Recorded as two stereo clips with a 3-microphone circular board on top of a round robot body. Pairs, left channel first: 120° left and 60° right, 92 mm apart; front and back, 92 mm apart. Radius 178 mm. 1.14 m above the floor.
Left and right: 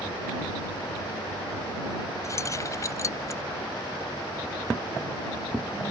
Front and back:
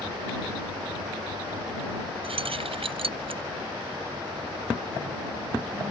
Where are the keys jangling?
175° left.